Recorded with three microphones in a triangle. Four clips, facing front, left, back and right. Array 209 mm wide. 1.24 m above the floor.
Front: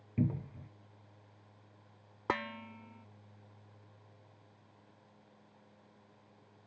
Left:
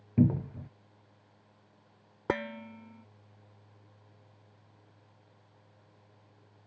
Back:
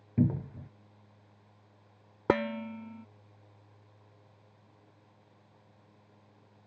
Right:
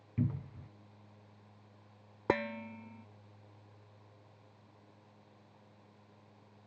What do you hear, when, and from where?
0.2 s a cupboard door: 110° left
2.3 s dishes clattering: 175° right